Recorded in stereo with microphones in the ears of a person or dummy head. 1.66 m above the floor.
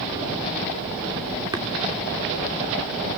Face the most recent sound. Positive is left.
turn(degrees=-15)  # may be behind; listen again after turning